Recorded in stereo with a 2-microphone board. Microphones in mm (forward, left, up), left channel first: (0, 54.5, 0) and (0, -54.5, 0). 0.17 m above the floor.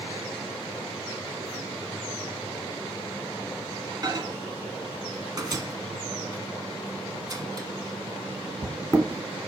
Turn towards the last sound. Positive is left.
turn(degrees=-35)  # may be behind; listen again after turning